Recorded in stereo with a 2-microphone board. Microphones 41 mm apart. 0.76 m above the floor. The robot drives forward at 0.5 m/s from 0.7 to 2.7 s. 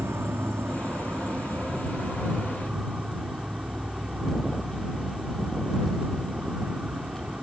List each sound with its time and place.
0.0 s an insect: 70° right (ahead or behind); by 7.4 s 40° right (ahead or behind)